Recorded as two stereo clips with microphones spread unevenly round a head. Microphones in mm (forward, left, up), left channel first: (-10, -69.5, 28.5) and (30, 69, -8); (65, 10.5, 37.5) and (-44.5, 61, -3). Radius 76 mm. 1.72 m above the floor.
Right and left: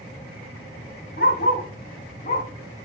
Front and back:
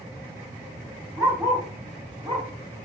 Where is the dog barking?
120° right, 4.5 m; by 2.5 s 140° right, 3.5 m.